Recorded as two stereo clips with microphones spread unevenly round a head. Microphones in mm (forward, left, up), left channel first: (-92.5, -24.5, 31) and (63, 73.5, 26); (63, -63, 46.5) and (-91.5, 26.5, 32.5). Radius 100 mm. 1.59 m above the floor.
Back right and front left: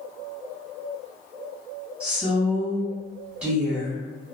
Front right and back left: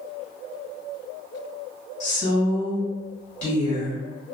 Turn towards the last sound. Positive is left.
turn(degrees=-55)